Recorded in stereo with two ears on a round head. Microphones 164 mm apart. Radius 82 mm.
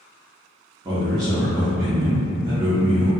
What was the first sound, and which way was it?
A man speaking, 25° right (ahead or behind).